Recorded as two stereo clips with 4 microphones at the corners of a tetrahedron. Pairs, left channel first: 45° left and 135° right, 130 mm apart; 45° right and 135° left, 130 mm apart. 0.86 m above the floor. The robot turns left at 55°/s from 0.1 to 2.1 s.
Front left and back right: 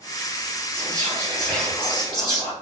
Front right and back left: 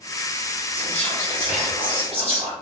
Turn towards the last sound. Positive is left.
turn(degrees=100)